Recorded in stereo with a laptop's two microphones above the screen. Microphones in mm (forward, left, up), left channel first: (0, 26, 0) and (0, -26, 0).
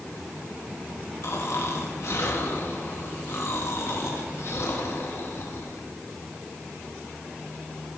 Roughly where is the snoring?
Left.